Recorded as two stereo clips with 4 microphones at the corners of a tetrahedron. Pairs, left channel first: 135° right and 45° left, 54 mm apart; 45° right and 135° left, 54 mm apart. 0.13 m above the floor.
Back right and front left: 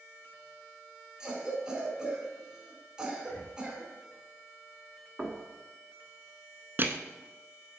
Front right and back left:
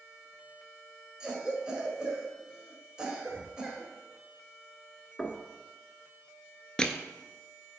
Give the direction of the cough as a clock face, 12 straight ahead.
9 o'clock.